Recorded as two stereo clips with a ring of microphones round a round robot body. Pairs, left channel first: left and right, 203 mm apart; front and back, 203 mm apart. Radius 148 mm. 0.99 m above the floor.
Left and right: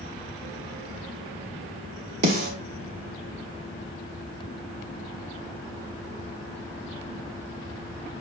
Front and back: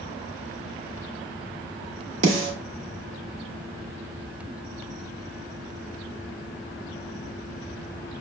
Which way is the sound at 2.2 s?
140° right.